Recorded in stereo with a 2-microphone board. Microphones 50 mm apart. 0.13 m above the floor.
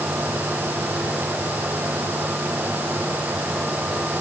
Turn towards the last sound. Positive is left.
No sound to turn to.